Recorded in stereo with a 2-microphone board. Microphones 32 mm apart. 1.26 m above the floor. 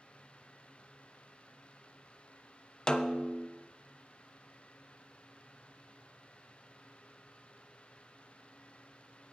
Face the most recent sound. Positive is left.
turn(degrees=20)  # may be behind; listen again after turning